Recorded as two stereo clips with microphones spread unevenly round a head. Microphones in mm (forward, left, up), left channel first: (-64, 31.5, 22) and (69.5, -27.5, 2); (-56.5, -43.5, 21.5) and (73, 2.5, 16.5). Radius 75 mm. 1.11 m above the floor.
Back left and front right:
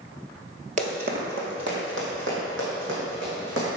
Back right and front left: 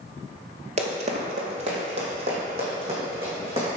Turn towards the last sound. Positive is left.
turn(degrees=-30)